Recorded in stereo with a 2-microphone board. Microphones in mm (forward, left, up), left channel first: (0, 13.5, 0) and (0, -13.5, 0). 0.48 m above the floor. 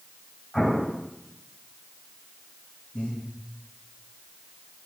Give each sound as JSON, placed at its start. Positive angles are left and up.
{"t": 0.5, "sound": "an explosion", "side_deg": 25, "distance_m": 2.5}
{"t": 2.9, "sound": "breathing", "side_deg": 70, "distance_m": 5.0}